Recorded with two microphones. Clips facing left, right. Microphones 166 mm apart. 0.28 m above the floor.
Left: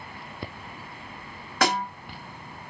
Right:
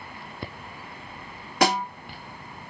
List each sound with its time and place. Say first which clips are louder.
1.6 s a snare drum: right 2 dB; 15° right (ahead or behind), 1.4 m